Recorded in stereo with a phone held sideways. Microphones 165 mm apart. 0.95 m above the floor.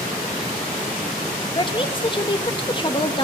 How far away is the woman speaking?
About 1.0 m.